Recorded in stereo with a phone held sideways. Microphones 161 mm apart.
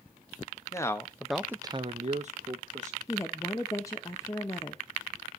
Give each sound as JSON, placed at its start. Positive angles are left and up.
{"t": 0.7, "sound": "a man speaking", "side_deg": 20, "distance_m": 1.0}
{"t": 3.1, "sound": "a woman speaking", "side_deg": 20, "distance_m": 0.8}